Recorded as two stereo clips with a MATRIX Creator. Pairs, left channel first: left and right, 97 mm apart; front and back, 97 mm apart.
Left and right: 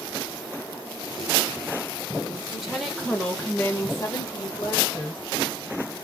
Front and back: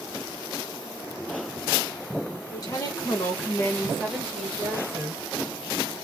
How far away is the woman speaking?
About 1.7 m.